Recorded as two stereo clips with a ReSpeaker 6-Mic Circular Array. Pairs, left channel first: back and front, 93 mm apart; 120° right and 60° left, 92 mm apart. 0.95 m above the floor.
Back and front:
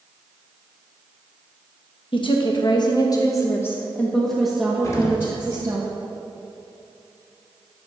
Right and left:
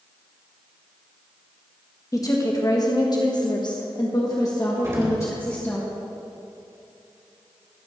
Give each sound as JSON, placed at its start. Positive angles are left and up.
{"t": 2.1, "sound": "a woman speaking", "azimuth_deg": -170, "distance_m": 1.4}
{"t": 4.8, "sound": "an explosion", "azimuth_deg": 120, "distance_m": 2.0}